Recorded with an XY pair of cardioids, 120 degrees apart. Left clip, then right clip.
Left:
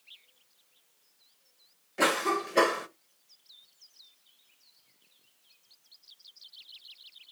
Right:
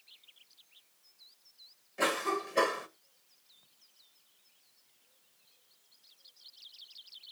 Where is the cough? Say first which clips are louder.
Left 4 dB; 35° left, 1.3 m.